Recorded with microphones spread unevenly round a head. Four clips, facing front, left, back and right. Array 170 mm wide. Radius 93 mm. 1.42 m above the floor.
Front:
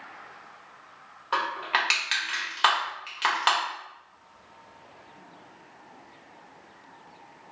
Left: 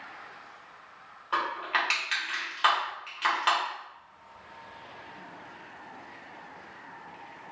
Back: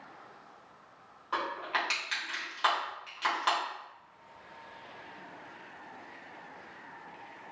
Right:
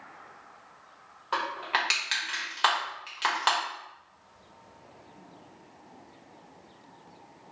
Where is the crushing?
70° right, 1.2 m.